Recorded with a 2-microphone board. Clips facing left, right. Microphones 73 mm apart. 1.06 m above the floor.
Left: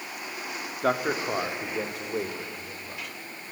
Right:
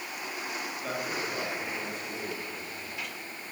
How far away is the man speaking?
About 2.5 m.